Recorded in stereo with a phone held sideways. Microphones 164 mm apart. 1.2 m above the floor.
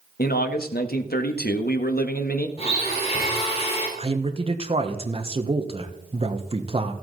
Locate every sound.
0.2 s a man speaking: 70° left (ahead or behind), 1.3 m
2.6 s a blender: 40° left (ahead or behind), 4.5 m
4.0 s a man speaking: 35° right (ahead or behind), 1.2 m